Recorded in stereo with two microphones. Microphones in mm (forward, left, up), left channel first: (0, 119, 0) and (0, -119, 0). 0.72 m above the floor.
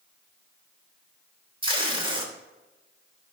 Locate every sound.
1.6 s tape being pulled: 20° right (ahead or behind), 3 m